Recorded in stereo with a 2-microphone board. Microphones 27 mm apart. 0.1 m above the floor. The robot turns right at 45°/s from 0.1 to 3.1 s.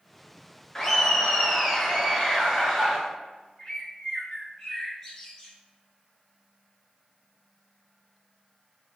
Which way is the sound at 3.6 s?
15° left (ahead or behind).